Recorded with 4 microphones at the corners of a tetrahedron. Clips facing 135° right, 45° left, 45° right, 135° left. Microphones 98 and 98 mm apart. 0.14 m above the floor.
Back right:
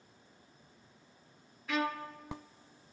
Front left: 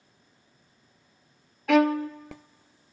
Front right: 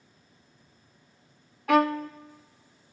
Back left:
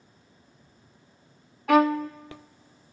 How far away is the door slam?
No door slam in this recording.